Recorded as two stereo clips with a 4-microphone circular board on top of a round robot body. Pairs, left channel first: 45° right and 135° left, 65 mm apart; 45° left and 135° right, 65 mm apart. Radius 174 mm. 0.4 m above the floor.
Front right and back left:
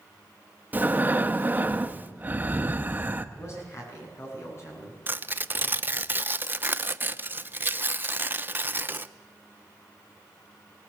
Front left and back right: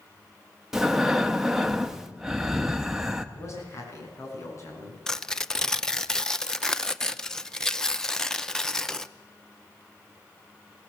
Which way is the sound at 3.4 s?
Straight ahead.